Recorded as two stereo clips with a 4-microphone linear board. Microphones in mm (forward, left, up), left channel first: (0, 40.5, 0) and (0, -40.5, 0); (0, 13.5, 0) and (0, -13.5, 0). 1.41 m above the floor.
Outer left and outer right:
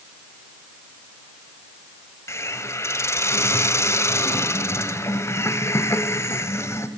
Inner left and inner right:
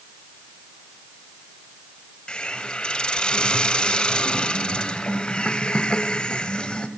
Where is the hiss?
35° left (ahead or behind), 1.7 m.